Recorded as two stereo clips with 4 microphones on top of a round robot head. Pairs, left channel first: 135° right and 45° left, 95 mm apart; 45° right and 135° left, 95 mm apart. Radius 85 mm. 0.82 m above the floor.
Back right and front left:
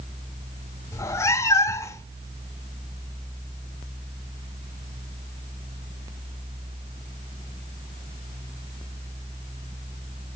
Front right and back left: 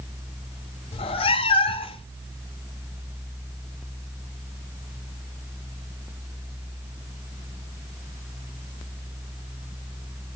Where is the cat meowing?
75° right, 0.9 m.